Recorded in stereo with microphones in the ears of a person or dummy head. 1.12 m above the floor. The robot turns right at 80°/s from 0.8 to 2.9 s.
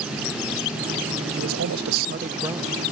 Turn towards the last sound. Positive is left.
turn(degrees=15)